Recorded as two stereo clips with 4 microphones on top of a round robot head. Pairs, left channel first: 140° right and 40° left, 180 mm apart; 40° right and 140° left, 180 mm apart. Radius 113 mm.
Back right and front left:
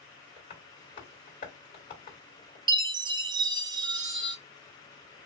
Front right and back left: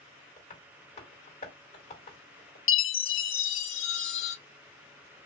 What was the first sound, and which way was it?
Tapping, 90° right.